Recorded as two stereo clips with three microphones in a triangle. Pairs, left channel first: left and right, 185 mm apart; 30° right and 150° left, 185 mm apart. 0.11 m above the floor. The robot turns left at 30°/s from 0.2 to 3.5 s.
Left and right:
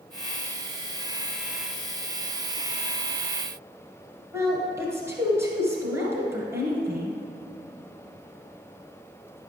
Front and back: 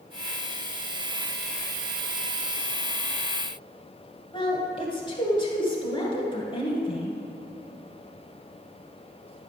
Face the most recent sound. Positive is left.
turn(degrees=-30)